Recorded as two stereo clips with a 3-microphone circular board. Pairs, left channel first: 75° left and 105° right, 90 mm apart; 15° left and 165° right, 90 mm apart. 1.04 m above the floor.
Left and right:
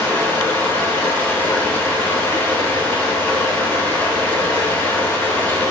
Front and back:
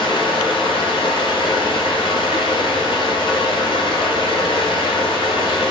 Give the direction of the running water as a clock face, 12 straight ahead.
12 o'clock.